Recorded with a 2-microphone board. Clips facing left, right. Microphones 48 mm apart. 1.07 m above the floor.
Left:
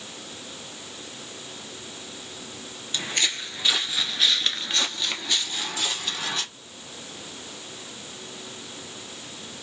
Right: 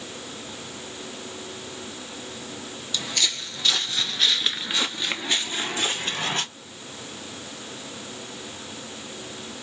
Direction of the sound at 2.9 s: 30° left (ahead or behind).